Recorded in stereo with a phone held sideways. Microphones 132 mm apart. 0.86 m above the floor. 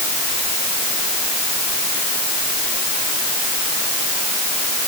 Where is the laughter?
I don't hear laughter.